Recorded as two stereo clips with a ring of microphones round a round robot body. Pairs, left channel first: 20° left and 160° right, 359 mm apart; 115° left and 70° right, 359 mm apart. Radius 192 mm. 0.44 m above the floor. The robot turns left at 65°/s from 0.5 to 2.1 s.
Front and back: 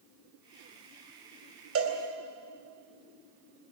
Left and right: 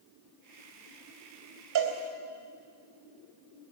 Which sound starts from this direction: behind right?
A cowbell, at 1.8 s.